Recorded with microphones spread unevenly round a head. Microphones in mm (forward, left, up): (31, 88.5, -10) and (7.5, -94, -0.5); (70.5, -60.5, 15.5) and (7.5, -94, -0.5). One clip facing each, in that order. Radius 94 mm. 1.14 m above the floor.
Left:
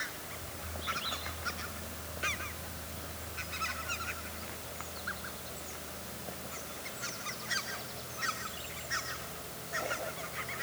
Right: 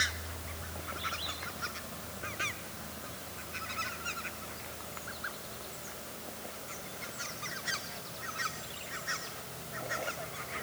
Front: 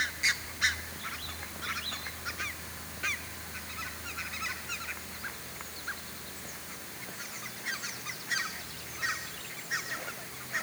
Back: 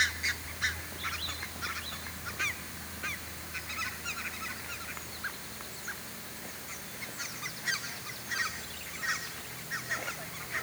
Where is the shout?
No shout in this recording.